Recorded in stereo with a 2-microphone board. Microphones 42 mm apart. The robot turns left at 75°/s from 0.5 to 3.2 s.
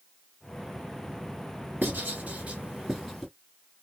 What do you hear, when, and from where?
1.8 s writing: 50° right (ahead or behind), 2.5 m; by 3.3 s 10° left (ahead or behind), 2.5 m